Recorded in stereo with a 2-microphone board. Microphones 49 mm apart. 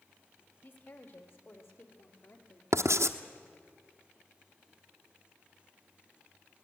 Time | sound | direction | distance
0.6 | a woman speaking | 50° left (ahead or behind) | 3 m
2.7 | writing | 75° right (ahead or behind) | 1.0 m